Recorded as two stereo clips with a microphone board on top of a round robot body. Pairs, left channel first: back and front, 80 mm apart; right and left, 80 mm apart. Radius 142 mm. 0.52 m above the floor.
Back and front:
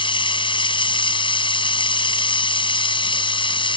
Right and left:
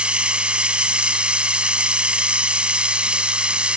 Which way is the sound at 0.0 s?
170° left.